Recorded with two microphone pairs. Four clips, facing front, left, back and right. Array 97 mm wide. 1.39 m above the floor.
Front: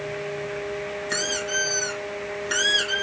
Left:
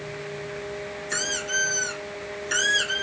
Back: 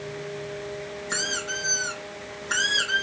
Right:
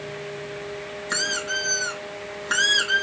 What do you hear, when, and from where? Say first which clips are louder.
1.1 s a squeak: right 2 dB, front 2 dB; 95° right, 3.5 m